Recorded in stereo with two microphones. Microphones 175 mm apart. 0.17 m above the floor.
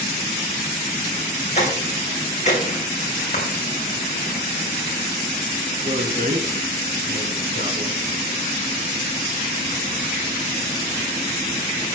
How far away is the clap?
About 5 m.